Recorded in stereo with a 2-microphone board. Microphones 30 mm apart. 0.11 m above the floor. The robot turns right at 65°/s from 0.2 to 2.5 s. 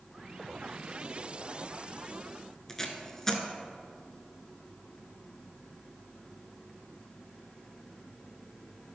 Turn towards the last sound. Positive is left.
turn(degrees=15)  # may be behind; listen again after turning